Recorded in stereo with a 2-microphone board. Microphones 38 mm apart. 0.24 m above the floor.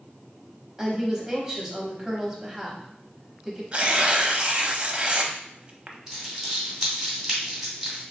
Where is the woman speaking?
15° right (ahead or behind), 1.0 m.